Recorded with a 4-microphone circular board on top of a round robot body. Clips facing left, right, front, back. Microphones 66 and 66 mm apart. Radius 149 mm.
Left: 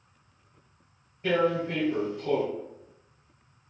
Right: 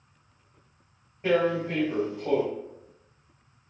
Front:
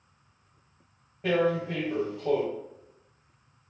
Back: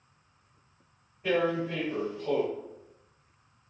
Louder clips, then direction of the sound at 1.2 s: Right 1 dB, front 2 dB; 25° right.